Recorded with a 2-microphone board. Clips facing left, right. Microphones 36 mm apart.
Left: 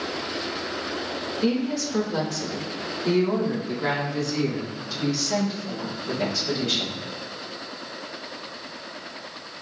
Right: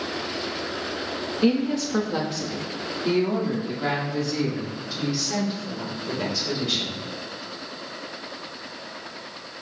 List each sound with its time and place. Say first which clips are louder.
1.4 s a woman speaking: right 3 dB; 45° right (ahead or behind), 1.1 m; by 7.0 s 5° right (ahead or behind), 3.5 m